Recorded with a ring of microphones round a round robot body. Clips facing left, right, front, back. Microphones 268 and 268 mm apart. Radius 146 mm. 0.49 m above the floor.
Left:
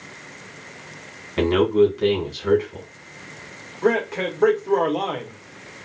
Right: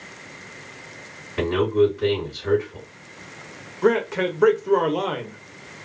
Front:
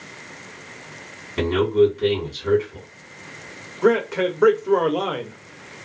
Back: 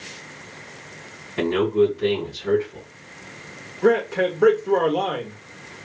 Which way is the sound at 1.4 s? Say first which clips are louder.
Left 2 dB, front 1 dB; 75° left.